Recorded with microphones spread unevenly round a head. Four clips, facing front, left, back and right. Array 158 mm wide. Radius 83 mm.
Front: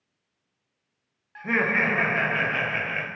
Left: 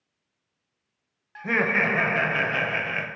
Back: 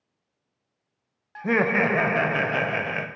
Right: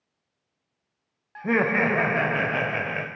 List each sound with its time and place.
1.4 s laughter: 155° right, 0.6 m